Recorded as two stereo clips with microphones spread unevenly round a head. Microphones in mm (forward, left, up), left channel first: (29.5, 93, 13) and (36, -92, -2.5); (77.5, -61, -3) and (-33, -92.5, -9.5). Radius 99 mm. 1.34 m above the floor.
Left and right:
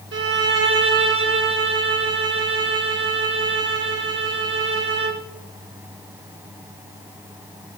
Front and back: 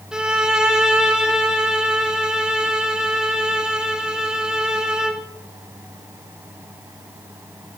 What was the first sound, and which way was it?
A violin, 80° right.